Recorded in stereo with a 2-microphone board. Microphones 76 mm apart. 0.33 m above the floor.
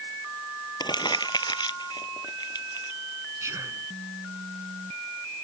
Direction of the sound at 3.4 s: 40° right (ahead or behind).